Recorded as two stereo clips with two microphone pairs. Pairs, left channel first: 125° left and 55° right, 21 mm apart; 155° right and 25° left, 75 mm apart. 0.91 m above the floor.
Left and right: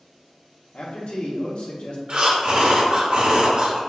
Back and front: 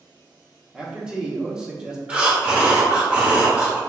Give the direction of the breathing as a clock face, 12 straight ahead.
1 o'clock.